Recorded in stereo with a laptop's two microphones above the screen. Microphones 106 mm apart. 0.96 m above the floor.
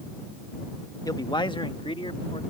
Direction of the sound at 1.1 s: 35° left (ahead or behind).